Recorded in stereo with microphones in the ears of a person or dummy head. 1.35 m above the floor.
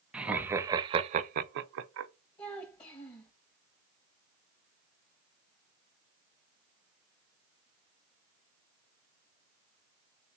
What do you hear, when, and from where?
0.1 s laughter: 5° right (ahead or behind), 0.9 m; by 2.1 s 85° right, 0.7 m
2.4 s a child speaking: 25° left (ahead or behind), 1.5 m